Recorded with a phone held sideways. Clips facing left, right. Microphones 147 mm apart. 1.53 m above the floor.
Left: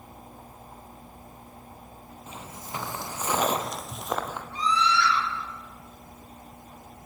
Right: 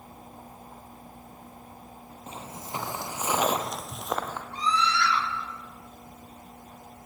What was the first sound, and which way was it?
Footsteps, 30° right (ahead or behind).